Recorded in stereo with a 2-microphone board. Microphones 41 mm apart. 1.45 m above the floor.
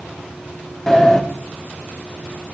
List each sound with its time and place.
0.9 s a sliding door: 10° left (ahead or behind), 1.2 m